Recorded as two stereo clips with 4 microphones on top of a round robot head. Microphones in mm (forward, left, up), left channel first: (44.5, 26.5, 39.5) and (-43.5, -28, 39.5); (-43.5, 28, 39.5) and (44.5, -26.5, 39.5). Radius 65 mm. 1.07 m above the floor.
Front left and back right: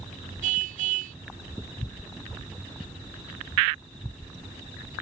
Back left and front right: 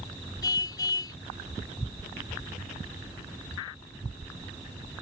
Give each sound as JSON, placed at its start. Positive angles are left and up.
{"t": 0.4, "sound": "a car horn", "azimuth_deg": -150}